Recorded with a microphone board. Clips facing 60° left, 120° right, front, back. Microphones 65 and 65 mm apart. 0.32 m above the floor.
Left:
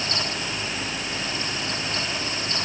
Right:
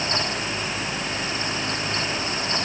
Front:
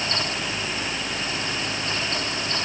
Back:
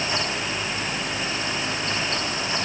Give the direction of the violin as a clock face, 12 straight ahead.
No violin in this recording.